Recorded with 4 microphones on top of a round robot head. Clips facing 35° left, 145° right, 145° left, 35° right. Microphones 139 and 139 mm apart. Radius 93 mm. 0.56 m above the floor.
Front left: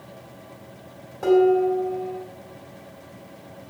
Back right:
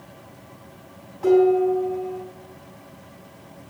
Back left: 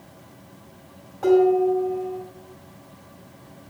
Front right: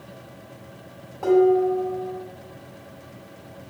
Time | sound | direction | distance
1.2 | dishes clattering | 45° left | 4 m